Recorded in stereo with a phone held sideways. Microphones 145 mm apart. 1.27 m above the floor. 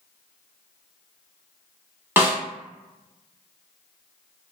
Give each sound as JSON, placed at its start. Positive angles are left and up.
{"t": 2.2, "sound": "a snare drum", "side_deg": -15, "distance_m": 0.9}